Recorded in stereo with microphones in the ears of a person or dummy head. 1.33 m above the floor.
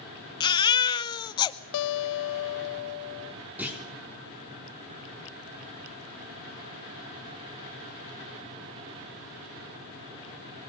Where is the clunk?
10° right (ahead or behind), 3.5 m.